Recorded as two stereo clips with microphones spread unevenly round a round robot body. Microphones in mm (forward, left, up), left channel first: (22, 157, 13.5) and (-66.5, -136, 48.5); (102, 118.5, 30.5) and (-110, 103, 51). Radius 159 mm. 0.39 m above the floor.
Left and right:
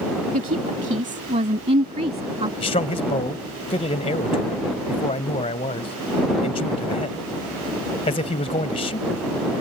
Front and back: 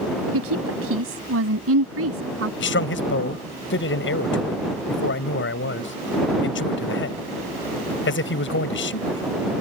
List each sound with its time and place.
0.3 s a woman speaking: 170° right; by 2.5 s straight behind
2.6 s a man speaking: 5° left